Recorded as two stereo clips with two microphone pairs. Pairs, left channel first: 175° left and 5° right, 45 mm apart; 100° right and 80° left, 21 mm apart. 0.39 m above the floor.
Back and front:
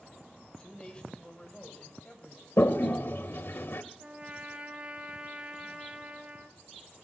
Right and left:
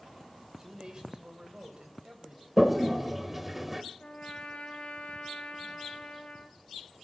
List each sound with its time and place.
0.4 s a man speaking: 120° left, 1.7 m; by 2.5 s 115° left, 2.5 m
2.6 s a toilet flushing: 160° left, 0.7 m
4.0 s a trumpet: 70° right, 1.6 m